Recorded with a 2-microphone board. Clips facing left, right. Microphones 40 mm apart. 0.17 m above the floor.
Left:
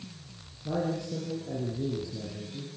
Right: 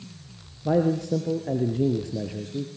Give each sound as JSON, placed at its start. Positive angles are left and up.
{"t": 0.7, "sound": "a man speaking", "side_deg": -60, "distance_m": 3.0}